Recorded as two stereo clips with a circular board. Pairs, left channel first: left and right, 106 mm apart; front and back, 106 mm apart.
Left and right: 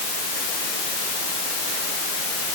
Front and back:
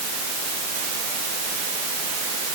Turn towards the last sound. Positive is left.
No sound to turn to.